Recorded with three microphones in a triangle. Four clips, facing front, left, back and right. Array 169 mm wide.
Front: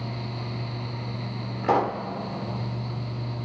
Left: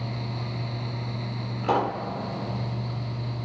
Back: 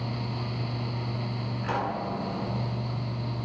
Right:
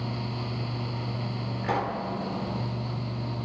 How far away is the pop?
About 1.6 m.